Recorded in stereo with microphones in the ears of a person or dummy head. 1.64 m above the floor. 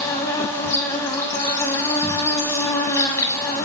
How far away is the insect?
About 0.7 m.